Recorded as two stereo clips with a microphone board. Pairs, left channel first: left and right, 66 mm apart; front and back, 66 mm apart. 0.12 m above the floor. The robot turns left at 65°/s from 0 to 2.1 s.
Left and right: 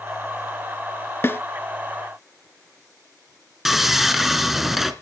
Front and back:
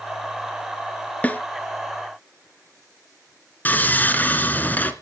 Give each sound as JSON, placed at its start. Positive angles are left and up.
{"t": 1.2, "sound": "a snare drum", "azimuth_deg": 55, "distance_m": 0.9}
{"t": 3.6, "sound": "sawing", "azimuth_deg": -10, "distance_m": 1.5}